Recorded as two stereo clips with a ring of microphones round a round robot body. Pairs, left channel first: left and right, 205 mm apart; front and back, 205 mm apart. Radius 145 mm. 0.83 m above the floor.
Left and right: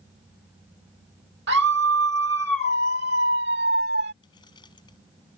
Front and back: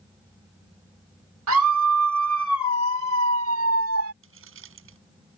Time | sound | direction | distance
1.5 | a scream | 145° right | ?
4.2 | keys jangling | 165° left | ?